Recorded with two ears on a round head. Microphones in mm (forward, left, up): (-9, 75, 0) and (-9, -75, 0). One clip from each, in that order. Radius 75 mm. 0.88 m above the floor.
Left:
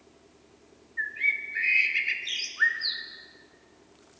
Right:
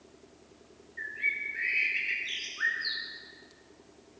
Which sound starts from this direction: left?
A bird, at 1.0 s.